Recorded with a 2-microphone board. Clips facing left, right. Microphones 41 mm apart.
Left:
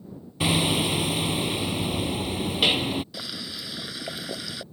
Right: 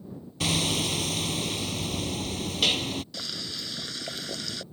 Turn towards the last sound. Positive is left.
turn(degrees=10)  # may be behind; listen again after turning